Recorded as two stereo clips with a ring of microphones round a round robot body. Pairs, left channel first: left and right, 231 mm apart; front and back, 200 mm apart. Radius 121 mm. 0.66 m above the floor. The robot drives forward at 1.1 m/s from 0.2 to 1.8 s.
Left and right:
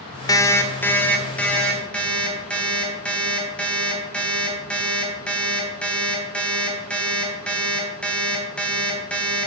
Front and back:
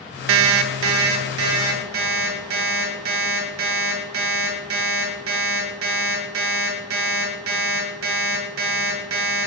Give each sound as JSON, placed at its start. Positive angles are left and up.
{"t": 0.3, "sound": "an alarm clock", "azimuth_deg": 165, "distance_m": 0.7}